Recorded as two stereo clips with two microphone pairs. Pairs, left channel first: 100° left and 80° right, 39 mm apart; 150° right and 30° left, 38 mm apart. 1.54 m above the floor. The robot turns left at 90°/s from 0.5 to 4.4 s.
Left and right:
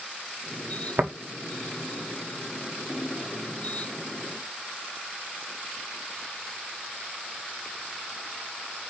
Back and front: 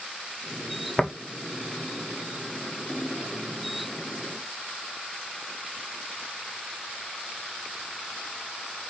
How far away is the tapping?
About 1.2 m.